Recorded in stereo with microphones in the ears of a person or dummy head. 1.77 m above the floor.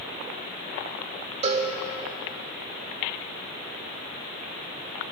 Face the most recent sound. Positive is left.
turn(degrees=-35)  # may be behind; listen again after turning